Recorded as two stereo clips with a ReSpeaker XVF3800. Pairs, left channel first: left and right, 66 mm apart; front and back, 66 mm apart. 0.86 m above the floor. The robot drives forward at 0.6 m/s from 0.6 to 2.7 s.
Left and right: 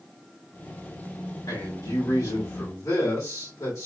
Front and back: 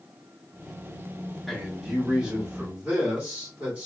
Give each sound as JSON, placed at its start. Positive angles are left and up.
{"t": 1.5, "sound": "a man speaking", "azimuth_deg": 90, "distance_m": 1.7}